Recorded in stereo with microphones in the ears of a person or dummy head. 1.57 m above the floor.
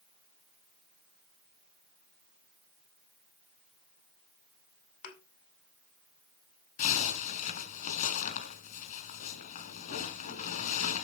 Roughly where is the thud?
Left.